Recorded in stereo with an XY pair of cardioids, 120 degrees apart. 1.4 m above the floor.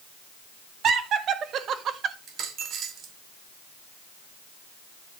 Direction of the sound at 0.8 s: 60° right.